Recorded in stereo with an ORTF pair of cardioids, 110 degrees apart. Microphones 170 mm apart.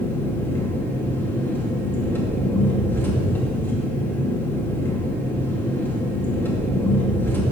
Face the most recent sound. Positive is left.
turn(degrees=10)